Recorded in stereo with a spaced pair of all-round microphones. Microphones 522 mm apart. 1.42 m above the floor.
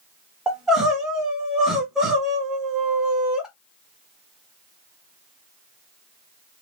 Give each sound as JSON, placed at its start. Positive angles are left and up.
{"t": 0.5, "sound": "crying", "side_deg": 0, "distance_m": 1.3}